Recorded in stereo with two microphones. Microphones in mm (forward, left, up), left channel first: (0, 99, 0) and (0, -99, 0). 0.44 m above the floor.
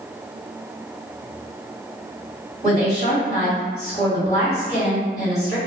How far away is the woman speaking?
About 2.0 m.